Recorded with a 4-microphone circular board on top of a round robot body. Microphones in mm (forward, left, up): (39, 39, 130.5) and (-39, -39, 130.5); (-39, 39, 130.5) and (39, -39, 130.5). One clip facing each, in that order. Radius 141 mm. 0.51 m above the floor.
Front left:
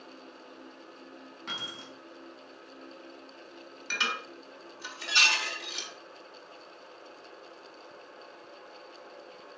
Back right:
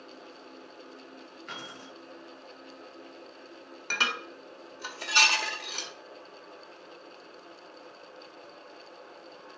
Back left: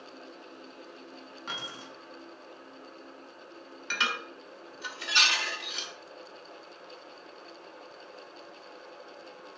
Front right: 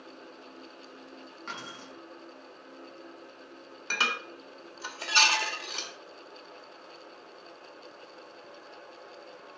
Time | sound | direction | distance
1.5 | keys jangling | 50° left | 4.5 m
3.9 | dishes clattering | 95° right | 1.7 m